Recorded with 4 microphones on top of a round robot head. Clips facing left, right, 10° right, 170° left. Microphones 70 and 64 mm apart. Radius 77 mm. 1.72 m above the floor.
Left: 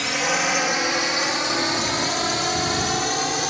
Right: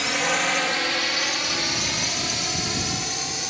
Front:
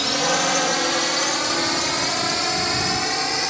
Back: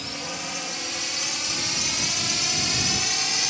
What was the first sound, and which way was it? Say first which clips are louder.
A drone: left 1 dB, front 13 dB; straight ahead.